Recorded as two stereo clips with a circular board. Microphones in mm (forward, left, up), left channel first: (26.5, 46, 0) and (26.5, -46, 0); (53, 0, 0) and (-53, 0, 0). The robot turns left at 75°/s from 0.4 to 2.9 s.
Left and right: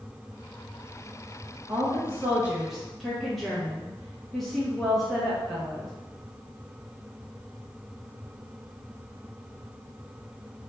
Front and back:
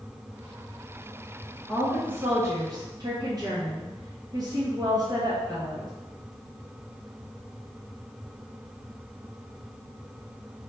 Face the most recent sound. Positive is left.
turn(degrees=175)